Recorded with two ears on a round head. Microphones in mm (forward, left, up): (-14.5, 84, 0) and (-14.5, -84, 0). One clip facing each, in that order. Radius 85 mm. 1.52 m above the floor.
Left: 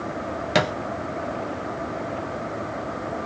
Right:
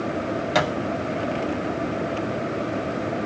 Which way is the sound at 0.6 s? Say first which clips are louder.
Left 1 dB; 25° left (ahead or behind).